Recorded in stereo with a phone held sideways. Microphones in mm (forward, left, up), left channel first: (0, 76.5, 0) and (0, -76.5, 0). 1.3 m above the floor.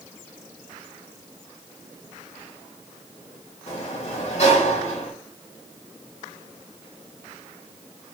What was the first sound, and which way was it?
A sliding door, 50° left (ahead or behind).